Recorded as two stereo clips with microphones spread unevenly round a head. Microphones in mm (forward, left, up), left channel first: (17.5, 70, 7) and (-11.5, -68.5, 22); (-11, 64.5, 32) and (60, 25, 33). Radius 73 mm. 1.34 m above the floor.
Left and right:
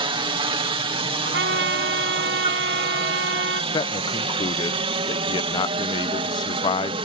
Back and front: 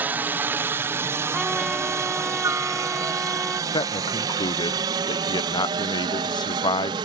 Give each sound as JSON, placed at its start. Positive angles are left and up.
{"t": 0.0, "sound": "a helicopter", "azimuth_deg": -80}
{"t": 1.2, "sound": "a trumpet", "azimuth_deg": -115}
{"t": 3.7, "sound": "a man speaking", "azimuth_deg": 135}